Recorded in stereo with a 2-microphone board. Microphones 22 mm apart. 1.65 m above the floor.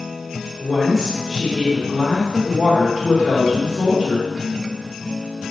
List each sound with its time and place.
0.6 s a woman speaking: 10° right (ahead or behind), 2.5 m